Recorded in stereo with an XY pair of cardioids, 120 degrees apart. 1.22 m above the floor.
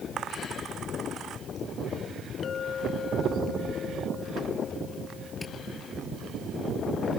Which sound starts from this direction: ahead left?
A clink, at 2.4 s.